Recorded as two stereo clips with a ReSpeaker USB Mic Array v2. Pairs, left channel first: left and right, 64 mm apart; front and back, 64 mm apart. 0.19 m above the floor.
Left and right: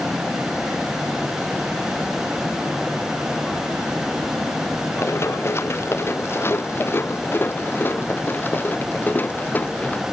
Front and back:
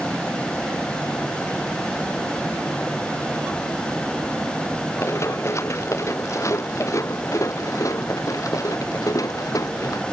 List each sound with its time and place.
5.0 s running footsteps: 45° left; by 10.0 s 25° left